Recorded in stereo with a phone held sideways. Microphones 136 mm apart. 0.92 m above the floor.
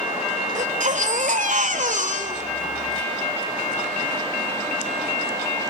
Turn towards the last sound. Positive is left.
turn(degrees=-70)  # may be behind; listen again after turning